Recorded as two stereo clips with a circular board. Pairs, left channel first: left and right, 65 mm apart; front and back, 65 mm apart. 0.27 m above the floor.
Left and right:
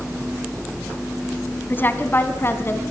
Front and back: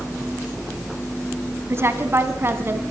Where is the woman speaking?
140° left, 2.5 m; by 2.8 s 135° left, 3 m.